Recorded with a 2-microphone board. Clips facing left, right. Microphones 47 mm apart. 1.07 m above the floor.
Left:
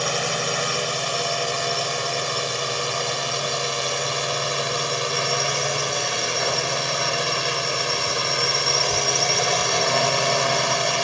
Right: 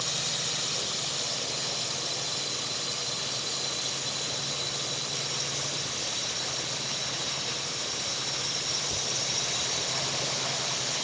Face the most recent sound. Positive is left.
turn(degrees=75)  # may be behind; listen again after turning